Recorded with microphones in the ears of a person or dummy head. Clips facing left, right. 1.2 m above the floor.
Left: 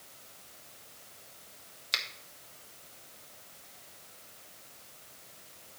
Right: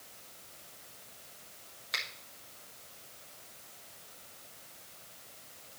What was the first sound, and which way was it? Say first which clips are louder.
A finger snap: left 1 dB; 35° left (ahead or behind).